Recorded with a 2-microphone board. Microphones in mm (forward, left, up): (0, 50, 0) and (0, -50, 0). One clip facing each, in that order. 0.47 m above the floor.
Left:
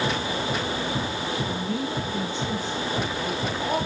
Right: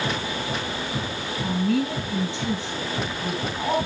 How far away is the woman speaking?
About 5.5 m.